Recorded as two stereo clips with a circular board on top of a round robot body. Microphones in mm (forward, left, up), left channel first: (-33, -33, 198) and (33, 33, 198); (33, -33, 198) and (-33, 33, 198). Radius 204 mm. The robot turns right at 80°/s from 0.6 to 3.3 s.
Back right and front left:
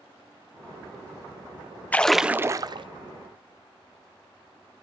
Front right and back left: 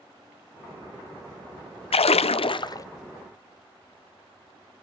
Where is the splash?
60° right, 0.5 m; by 2.9 s 15° left, 0.5 m.